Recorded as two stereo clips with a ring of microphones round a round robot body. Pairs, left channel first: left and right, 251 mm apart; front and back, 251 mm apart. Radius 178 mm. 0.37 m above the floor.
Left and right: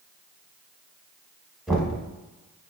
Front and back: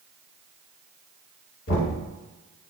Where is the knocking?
Straight ahead, 0.9 m.